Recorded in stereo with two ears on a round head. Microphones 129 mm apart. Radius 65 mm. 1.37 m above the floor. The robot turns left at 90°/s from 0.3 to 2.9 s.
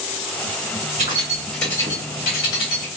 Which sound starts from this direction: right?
Keys jangling, at 1.0 s.